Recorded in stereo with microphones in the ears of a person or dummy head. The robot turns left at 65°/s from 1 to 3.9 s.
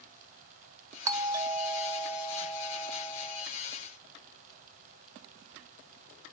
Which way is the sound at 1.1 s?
20° right (ahead or behind).